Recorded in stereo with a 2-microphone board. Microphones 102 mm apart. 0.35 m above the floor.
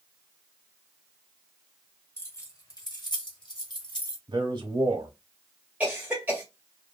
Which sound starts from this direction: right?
A man speaking, at 4.3 s.